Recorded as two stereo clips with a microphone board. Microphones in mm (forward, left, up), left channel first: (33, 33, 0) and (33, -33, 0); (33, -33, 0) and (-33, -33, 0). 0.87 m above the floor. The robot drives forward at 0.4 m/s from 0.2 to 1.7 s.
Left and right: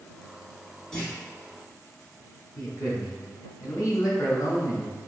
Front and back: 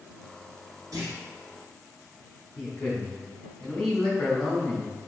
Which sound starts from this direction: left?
A man speaking, at 2.6 s.